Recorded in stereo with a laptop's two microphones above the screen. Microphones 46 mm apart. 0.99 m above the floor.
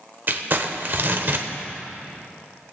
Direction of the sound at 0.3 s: 50° right (ahead or behind).